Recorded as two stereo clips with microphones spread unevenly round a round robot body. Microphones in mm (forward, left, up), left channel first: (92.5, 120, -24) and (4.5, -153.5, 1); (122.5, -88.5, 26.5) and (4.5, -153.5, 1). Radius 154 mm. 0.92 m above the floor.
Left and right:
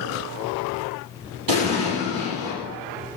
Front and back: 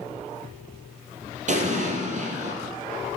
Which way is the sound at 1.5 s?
120° right.